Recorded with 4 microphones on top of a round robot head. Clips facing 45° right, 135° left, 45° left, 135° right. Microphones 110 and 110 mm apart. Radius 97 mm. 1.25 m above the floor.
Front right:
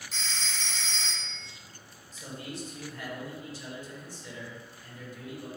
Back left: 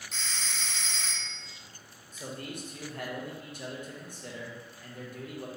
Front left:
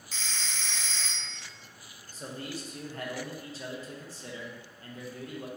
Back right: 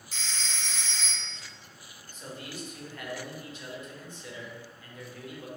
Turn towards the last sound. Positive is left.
turn(degrees=100)